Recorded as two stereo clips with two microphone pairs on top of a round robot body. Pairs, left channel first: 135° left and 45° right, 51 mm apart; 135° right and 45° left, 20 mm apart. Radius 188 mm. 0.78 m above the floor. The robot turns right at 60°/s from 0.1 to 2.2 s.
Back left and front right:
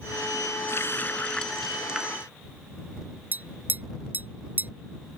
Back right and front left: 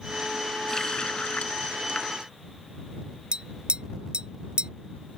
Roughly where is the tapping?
Ahead.